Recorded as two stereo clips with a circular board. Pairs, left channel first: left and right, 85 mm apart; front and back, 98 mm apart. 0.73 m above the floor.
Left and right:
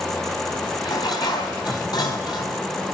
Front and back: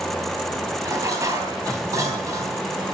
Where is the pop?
No pop in this recording.